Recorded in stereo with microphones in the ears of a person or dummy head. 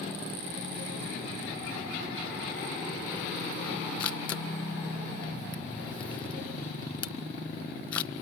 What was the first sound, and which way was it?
A camera shutter, 30° left (ahead or behind).